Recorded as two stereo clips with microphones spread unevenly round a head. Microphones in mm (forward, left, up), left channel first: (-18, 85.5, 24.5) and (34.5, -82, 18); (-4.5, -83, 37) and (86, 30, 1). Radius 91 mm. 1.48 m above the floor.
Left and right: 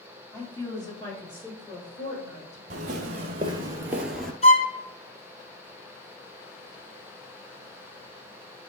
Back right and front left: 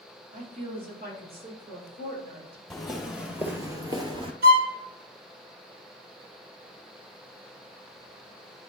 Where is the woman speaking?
30° left, 3.5 m; by 2.6 s 60° left, 5.5 m.